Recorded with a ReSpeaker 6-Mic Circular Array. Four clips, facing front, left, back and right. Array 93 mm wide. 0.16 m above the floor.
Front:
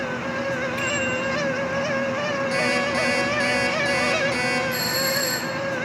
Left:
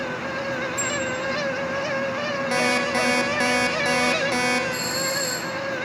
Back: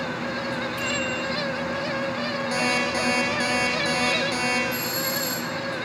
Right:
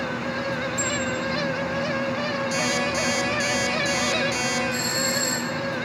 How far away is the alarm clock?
About 5 m.